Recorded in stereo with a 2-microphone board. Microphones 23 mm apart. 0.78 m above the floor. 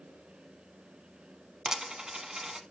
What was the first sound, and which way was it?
A dropped coin, 30° right (ahead or behind).